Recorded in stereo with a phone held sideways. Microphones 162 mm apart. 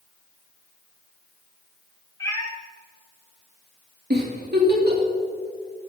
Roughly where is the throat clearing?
I don't hear throat clearing.